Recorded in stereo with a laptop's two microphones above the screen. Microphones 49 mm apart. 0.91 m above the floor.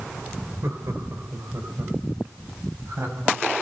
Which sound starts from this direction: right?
Laughter, at 0.6 s.